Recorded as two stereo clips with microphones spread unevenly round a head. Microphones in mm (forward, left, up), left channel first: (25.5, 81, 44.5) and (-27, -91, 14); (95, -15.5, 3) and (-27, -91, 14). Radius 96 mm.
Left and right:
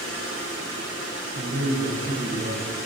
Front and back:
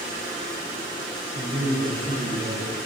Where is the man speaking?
120° right, 3 m.